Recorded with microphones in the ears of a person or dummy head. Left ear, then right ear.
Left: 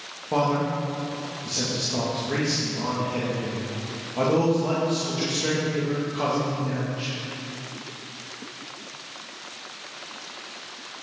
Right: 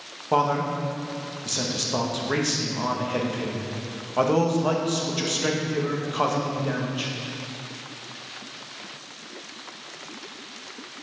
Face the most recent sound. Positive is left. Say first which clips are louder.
# right 1 dB
turn(degrees=-45)  # may be behind; listen again after turning